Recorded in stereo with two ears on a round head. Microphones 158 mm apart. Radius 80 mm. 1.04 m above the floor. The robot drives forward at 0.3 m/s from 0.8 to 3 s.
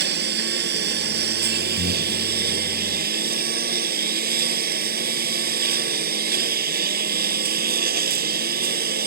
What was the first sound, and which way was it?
A lawn mower, 65° right (ahead or behind).